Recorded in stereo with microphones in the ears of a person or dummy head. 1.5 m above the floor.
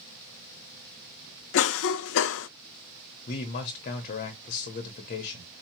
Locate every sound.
1.5 s a cough: 70° left (ahead or behind), 0.5 m
3.3 s a man speaking: 45° left (ahead or behind), 0.9 m